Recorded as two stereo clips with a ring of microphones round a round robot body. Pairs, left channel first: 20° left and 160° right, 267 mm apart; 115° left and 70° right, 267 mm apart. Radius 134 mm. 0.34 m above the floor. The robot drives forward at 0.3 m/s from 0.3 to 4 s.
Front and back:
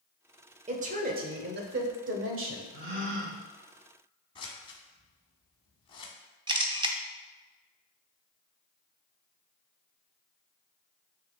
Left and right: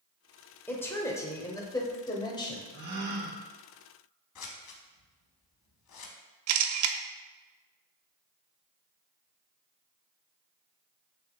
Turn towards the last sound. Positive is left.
turn(degrees=-85)